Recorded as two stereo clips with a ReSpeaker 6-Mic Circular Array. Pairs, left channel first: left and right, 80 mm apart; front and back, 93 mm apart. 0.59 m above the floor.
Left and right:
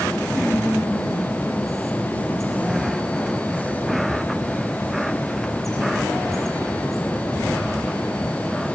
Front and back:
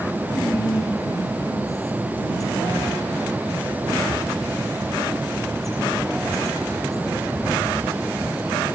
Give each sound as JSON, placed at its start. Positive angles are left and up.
{"t": 0.3, "sound": "whispering", "azimuth_deg": 50, "distance_m": 6.5}